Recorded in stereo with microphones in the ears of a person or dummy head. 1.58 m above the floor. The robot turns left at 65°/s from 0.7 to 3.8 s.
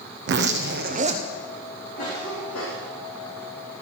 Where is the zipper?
120° right, 1.2 m; by 1.2 s 155° right, 1.2 m.